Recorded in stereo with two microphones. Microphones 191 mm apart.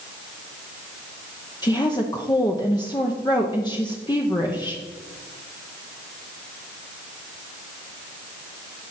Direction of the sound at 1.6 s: 20° left (ahead or behind).